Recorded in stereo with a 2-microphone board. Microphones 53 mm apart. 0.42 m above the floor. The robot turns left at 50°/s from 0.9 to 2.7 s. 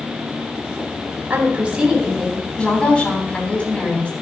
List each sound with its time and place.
1.3 s a woman speaking: 140° right, 3.5 m; by 4.1 s 150° left, 3.5 m